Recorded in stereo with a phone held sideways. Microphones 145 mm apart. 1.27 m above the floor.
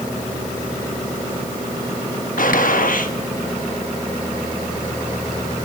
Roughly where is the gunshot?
Left.